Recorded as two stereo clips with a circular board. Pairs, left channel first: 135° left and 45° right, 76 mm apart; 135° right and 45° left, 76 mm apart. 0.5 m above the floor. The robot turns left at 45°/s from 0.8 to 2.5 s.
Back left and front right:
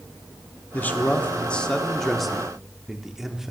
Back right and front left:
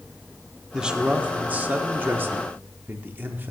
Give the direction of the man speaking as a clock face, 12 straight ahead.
8 o'clock.